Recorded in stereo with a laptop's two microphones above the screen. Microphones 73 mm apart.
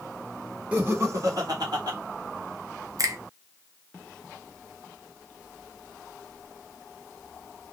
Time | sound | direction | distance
0.7 | laughter | 20° right (ahead or behind) | 1.1 m
3.0 | a finger snap | 50° right (ahead or behind) | 0.6 m